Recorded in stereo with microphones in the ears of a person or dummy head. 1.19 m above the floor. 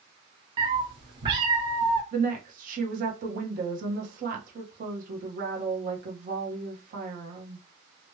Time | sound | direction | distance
0.6 | a cat meowing | 25° right (ahead or behind) | 0.9 m
2.1 | a woman speaking | 40° right (ahead or behind) | 1.2 m